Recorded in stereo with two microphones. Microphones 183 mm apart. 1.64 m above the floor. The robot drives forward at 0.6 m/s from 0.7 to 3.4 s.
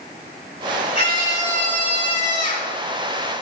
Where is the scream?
35° left (ahead or behind), 4 m; by 2.7 s 50° left (ahead or behind), 3 m.